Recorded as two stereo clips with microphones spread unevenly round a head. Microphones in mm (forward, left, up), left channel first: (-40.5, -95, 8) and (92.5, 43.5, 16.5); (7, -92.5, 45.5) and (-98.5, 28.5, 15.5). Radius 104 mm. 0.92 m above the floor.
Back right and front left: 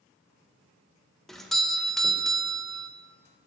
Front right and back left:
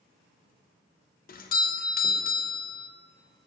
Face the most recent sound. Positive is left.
turn(degrees=-50)